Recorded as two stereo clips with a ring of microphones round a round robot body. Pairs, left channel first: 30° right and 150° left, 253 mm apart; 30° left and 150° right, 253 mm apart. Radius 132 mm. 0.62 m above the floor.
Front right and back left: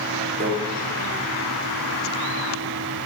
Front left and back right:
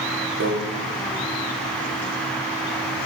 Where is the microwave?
160° right, 0.9 m.